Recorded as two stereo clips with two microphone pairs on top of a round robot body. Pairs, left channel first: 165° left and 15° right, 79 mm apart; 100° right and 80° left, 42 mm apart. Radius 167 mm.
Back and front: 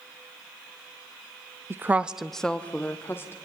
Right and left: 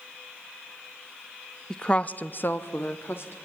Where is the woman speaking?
25° right, 1.2 m; by 3.4 s 135° right, 2 m.